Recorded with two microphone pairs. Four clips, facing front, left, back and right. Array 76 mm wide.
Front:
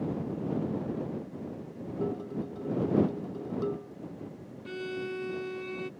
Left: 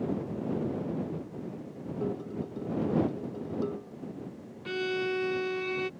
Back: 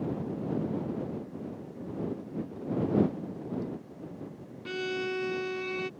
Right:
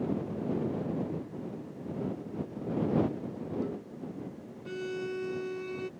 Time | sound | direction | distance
2.0 | dishes clattering | 20° left | ?
4.7 | a violin | 125° left | ?